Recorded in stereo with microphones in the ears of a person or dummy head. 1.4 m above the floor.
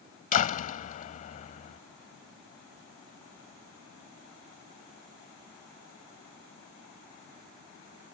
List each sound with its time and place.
0.3 s a door slam: 45° left (ahead or behind)